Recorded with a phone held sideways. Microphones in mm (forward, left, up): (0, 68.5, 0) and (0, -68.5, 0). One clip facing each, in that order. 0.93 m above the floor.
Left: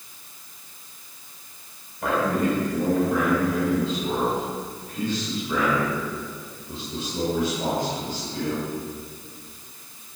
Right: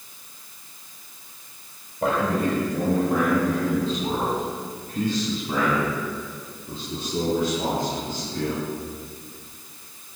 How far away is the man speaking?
About 4.5 m.